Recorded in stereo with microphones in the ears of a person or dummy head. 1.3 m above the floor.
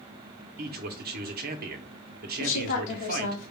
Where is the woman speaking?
65° left (ahead or behind), 0.8 m.